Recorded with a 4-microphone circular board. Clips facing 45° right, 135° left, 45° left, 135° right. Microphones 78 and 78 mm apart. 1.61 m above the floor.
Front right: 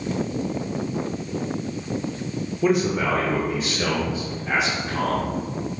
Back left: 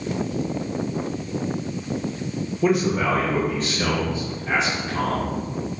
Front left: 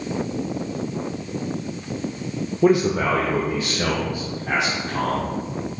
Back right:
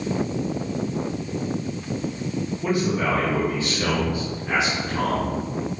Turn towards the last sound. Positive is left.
turn(degrees=40)